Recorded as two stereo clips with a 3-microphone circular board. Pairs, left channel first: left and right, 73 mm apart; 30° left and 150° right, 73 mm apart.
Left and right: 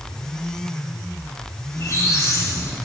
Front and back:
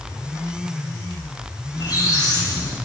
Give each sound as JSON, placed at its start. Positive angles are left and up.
{"t": 1.7, "sound": "a squeak", "azimuth_deg": 50, "distance_m": 3.0}